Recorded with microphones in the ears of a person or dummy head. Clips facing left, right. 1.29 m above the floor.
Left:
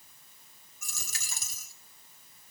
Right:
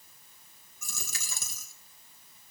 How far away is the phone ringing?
No phone ringing in this recording.